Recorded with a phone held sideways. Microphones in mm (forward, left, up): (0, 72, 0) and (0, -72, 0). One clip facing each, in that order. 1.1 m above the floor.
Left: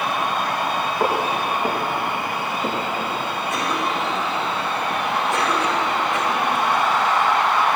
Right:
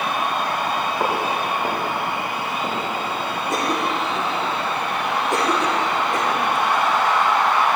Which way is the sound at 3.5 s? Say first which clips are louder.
Right 2 dB; 40° right (ahead or behind).